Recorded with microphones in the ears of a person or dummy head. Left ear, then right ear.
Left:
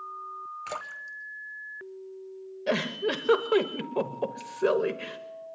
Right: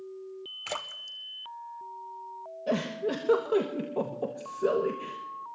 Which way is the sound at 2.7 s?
35° left (ahead or behind).